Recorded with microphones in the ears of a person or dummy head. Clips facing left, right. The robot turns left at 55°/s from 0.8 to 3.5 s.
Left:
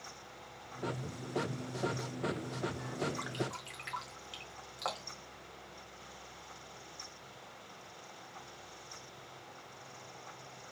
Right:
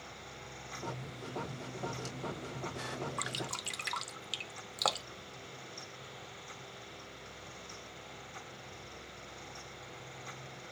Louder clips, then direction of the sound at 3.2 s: Left 3 dB; 45° right (ahead or behind).